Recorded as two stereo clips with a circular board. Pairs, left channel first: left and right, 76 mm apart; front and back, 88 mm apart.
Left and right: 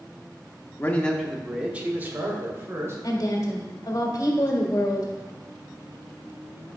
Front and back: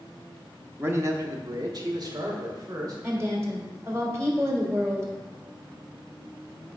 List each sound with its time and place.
0.8 s a man speaking: 130° left, 0.8 m; by 2.9 s 140° right, 2 m
3.0 s a woman speaking: 125° left, 1.7 m